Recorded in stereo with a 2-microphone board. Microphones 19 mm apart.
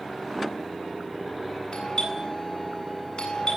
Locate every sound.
1.7 s a doorbell: 50° left (ahead or behind), 8 m